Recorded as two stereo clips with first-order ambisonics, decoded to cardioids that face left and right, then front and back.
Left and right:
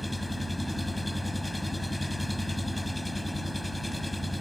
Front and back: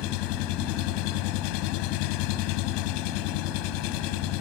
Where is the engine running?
5° left.